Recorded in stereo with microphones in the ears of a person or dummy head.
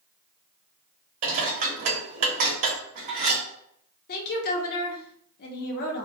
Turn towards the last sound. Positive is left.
turn(degrees=50)  # may be behind; listen again after turning